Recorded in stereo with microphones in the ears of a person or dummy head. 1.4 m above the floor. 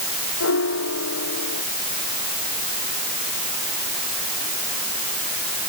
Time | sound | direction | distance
0.4 | a piano | 70° left (ahead or behind) | ?